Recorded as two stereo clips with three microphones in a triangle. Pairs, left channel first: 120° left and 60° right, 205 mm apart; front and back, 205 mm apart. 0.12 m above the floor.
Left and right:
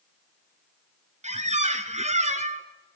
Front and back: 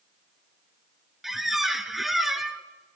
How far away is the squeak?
About 0.6 m.